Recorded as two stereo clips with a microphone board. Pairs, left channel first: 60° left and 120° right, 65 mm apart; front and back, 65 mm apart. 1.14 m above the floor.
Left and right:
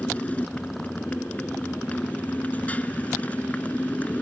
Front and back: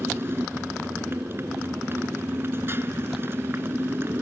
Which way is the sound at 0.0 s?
130° left.